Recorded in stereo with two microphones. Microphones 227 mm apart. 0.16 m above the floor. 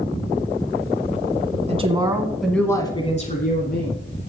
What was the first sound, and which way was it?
A woman speaking, 30° right (ahead or behind).